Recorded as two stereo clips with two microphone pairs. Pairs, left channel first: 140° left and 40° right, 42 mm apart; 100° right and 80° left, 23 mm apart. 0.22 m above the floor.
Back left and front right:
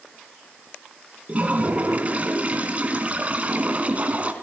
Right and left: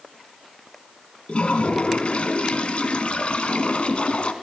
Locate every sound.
1.3 s a toilet flushing: 85° right, 1.8 m